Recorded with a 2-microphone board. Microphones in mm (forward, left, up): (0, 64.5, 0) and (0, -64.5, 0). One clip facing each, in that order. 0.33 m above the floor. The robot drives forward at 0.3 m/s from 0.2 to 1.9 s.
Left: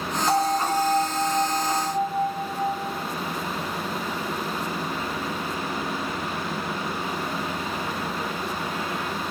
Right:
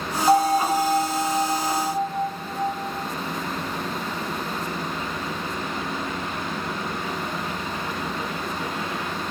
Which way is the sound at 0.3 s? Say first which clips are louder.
Right 5 dB; 35° right (ahead or behind).